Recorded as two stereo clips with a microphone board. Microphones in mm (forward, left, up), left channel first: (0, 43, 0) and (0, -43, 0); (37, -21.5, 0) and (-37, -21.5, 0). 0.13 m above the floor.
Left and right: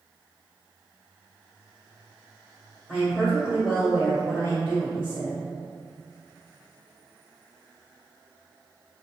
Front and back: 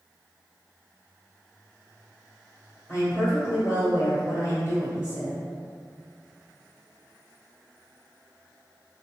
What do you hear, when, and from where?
2.9 s a woman speaking: 20° left, 1.5 m